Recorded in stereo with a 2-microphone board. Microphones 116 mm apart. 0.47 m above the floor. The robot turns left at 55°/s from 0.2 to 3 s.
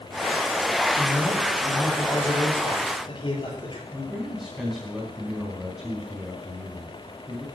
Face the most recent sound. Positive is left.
turn(degrees=-5)  # may be behind; listen again after turning